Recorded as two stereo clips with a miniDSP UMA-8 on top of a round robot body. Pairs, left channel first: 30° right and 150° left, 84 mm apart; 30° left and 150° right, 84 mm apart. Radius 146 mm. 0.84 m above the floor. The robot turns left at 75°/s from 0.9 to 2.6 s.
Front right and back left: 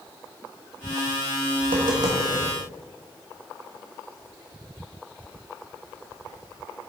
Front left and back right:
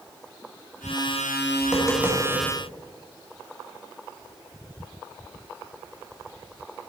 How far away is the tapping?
About 1.1 m.